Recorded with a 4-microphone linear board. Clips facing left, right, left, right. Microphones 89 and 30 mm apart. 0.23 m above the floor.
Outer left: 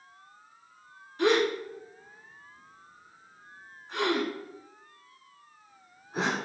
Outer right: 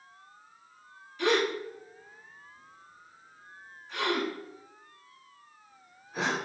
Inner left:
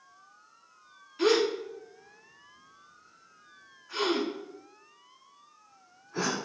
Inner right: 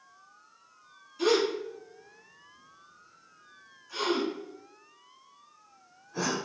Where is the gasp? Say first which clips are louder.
Outer left 2 dB, inner left 1 dB; 40° left (ahead or behind), 1.3 m.